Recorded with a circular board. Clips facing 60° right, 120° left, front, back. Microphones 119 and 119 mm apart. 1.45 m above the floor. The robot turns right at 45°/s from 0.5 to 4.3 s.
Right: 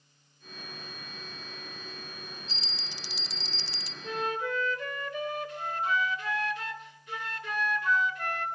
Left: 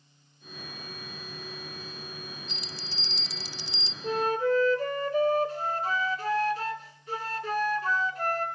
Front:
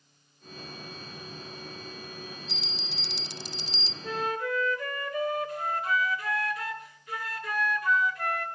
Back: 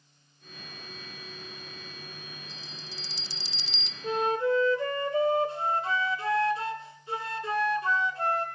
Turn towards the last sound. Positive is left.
turn(degrees=140)